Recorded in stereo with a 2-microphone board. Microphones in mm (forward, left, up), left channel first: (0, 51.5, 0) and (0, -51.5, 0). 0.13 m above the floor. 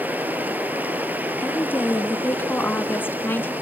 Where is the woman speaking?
20° left (ahead or behind), 1.5 m.